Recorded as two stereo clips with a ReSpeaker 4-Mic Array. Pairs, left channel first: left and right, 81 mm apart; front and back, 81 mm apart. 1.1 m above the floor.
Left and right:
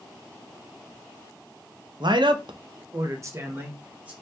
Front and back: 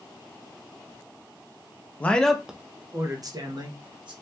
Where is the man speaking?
70° right, 0.6 m; by 4.1 s 160° right, 1.1 m.